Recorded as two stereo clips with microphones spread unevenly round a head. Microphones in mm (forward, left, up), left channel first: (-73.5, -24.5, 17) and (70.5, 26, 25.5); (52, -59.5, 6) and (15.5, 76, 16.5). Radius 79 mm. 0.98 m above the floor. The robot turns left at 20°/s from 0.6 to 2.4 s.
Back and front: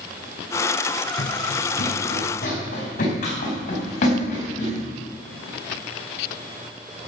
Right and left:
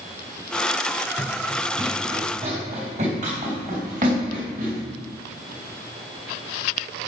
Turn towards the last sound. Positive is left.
turn(degrees=150)